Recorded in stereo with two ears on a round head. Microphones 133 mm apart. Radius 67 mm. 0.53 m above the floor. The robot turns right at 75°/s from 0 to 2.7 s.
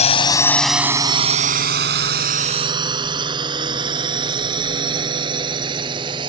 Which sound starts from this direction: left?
A drone, at 0.0 s.